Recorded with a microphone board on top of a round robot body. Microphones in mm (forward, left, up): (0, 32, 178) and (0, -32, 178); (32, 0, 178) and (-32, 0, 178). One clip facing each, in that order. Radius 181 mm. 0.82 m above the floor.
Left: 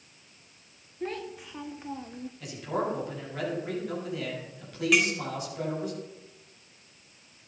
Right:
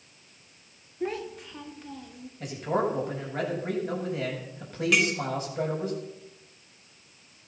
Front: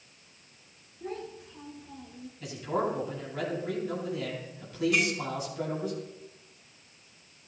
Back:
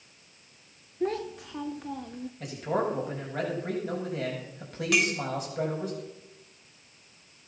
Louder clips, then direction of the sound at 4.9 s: Even, back 4 dB; straight behind.